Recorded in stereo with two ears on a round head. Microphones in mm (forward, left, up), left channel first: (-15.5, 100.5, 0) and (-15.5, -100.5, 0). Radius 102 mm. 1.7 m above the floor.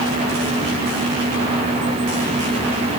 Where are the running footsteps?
No running footsteps in this recording.